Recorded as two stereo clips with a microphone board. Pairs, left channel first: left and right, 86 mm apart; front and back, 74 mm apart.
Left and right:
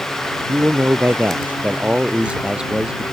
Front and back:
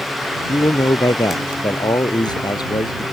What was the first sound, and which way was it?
A man speaking, 25° right.